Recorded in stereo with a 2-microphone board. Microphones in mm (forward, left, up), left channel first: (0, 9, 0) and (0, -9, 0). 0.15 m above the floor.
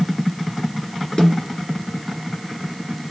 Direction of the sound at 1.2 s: 50° left (ahead or behind).